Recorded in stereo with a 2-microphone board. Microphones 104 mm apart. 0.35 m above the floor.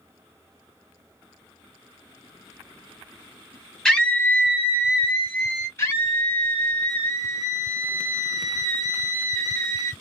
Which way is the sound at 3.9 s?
5° left (ahead or behind).